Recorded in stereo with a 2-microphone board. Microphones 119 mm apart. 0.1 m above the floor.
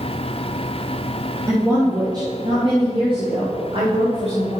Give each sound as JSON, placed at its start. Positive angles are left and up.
{"t": 1.5, "sound": "a woman speaking", "side_deg": -25, "distance_m": 3.5}